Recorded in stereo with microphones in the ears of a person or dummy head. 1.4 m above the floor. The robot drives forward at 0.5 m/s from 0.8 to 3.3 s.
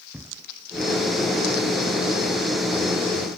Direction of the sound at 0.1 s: 5° right (ahead or behind).